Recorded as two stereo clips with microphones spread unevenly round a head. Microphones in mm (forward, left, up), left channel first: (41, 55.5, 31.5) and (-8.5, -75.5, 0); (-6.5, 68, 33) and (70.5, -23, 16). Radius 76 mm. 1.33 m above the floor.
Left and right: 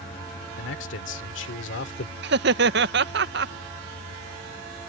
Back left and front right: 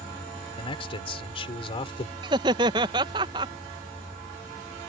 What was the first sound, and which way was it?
A man speaking, 85° left.